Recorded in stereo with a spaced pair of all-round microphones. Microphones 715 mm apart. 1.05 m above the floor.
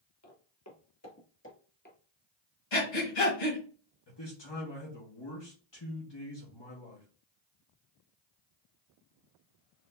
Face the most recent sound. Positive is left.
turn(degrees=35)  # may be behind; listen again after turning